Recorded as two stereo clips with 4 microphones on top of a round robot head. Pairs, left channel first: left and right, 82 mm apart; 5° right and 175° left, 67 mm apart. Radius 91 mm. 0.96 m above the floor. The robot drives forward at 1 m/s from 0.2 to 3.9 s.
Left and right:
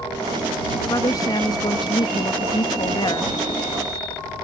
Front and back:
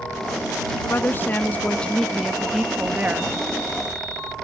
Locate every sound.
0.9 s a woman speaking: 45° left; by 3.3 s 115° left